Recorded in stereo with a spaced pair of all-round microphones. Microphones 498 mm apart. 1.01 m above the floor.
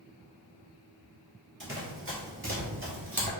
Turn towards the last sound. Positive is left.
turn(degrees=-25)  # may be behind; listen again after turning